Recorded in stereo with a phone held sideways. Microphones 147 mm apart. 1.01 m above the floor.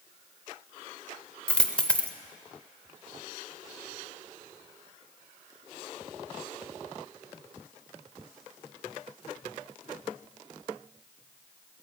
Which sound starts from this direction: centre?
A dropped coin, at 1.5 s.